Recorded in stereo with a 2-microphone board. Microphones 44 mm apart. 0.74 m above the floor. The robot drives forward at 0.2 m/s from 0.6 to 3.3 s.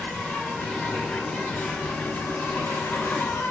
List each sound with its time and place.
0.0 s an insect: 30° left (ahead or behind), 0.9 m; by 3.5 s 60° left (ahead or behind), 0.5 m